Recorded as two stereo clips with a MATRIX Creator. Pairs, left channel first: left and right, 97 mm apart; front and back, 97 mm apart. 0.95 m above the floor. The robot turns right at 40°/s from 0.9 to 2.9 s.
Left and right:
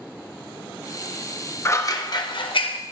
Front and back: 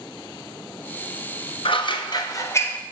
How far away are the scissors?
About 0.8 m.